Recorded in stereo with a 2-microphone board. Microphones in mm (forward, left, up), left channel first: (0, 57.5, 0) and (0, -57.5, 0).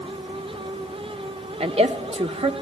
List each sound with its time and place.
1.6 s a woman speaking: 60° right (ahead or behind), 1.3 m